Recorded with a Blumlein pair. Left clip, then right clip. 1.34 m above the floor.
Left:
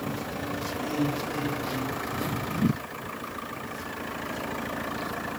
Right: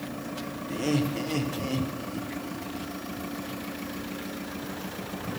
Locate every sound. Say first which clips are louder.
0.7 s laughter: right 3 dB; 35° right, 1.1 m